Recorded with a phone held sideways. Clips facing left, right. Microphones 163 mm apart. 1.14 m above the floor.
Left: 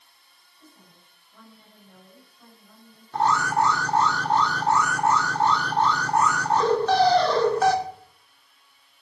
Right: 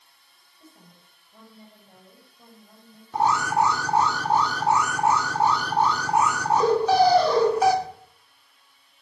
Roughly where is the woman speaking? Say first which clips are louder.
Right 2 dB; right.